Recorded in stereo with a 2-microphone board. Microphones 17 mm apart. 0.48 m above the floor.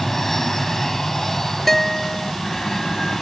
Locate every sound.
0.0 s an aircraft: 20° left (ahead or behind); by 3.2 s 25° left (ahead or behind)
1.7 s a guitar: 15° left (ahead or behind)